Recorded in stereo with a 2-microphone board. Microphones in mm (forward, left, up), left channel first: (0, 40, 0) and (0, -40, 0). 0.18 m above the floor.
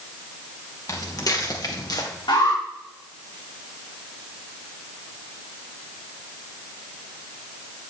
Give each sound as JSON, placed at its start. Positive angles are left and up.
{"t": 0.9, "sound": "footsteps", "side_deg": 45, "distance_m": 4.5}
{"t": 2.3, "sound": "an alarm", "side_deg": 80, "distance_m": 10.0}